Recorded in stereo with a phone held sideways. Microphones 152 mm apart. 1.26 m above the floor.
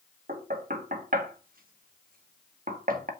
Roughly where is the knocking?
Right.